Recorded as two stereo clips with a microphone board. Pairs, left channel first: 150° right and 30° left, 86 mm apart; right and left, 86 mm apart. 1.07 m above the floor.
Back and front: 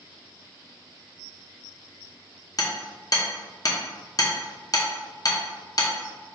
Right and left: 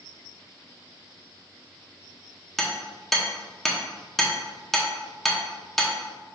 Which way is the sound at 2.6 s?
175° right.